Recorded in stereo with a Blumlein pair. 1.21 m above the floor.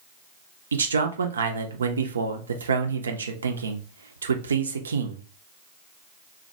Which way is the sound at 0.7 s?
70° right.